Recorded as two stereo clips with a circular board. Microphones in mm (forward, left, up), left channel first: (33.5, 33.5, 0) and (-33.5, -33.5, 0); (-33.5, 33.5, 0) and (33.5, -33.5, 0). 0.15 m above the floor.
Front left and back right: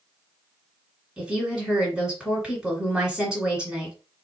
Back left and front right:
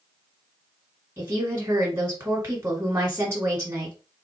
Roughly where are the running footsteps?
I don't hear running footsteps.